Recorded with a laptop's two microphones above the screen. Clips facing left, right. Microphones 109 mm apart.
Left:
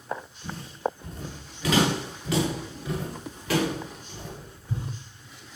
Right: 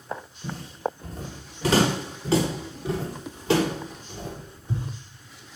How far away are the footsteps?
About 7.5 m.